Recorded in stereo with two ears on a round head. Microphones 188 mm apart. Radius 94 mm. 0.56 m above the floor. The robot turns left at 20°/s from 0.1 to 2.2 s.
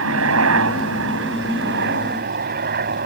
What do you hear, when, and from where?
0.0 s a helicopter: 85° right; by 3.1 s 125° right